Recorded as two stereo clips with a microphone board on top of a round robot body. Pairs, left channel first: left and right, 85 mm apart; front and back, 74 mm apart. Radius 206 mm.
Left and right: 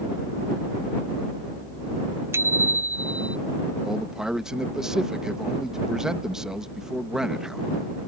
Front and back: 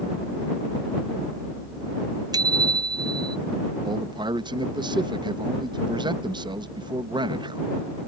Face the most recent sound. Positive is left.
turn(degrees=-175)